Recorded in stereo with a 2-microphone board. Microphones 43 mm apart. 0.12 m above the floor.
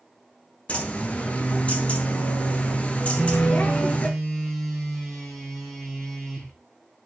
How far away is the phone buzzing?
About 5 m.